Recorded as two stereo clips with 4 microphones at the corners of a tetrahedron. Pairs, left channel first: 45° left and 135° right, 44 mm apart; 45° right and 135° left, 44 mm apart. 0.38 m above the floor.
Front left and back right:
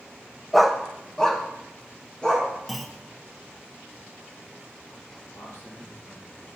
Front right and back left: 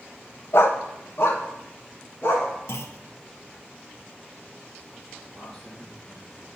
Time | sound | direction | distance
0.5 | a dog barking | 45° right | 0.6 m
2.7 | a clunk | 45° right | 0.7 m
5.3 | a man speaking | 30° left | 5 m